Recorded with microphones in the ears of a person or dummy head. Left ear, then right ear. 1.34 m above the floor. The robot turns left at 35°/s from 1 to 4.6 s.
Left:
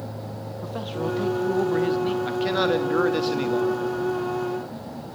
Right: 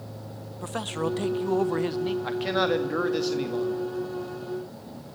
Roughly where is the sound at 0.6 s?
Behind right.